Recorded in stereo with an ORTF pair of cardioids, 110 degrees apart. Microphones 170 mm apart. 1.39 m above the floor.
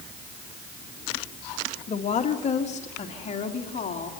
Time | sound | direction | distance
1.9 | a woman speaking | 45° left | 2 m